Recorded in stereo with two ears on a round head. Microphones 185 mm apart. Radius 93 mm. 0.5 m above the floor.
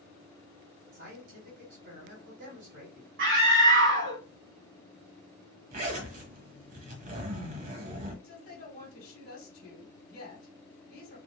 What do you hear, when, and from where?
0.9 s a man speaking: 55° right (ahead or behind), 2 m
3.2 s a scream: 60° right (ahead or behind), 2 m
5.7 s a zipper: 40° right (ahead or behind), 1.1 m
8.2 s a woman speaking: 35° left (ahead or behind), 1.7 m